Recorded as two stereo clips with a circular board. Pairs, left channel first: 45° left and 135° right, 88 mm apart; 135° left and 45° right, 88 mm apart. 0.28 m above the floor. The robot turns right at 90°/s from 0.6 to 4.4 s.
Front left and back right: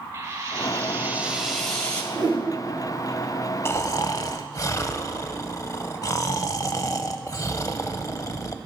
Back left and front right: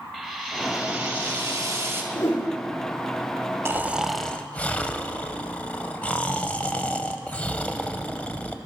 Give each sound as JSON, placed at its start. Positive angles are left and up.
{"t": 0.1, "sound": "frying", "azimuth_deg": -135, "distance_m": 1.5}
{"t": 2.1, "sound": "a whoosh", "azimuth_deg": 180, "distance_m": 3.5}
{"t": 3.6, "sound": "snoring", "azimuth_deg": 0, "distance_m": 0.5}